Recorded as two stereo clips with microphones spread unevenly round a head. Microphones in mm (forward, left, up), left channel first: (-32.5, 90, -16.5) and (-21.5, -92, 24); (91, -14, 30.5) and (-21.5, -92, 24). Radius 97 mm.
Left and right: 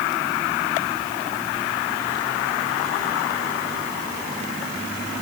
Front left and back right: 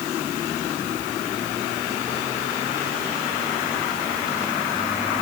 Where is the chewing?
I don't hear chewing.